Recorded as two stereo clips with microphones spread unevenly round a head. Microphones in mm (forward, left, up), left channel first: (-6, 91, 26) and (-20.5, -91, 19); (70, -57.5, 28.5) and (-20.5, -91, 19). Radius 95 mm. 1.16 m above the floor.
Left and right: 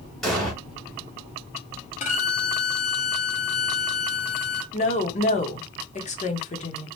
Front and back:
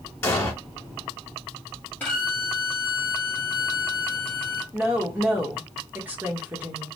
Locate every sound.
0.2 s an explosion: 5° left, 1.1 m
2.0 s a violin: 80° left, 0.7 m
4.7 s a woman speaking: 130° left, 0.9 m